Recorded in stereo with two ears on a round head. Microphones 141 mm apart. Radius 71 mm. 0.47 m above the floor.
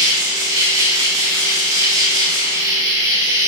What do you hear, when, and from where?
0.0 s an insect: 20° right (ahead or behind), 7 m